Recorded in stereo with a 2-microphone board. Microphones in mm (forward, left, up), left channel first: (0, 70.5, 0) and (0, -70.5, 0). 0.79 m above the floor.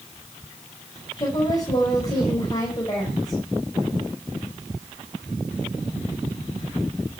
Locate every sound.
1.2 s a woman speaking: 30° left (ahead or behind), 5 m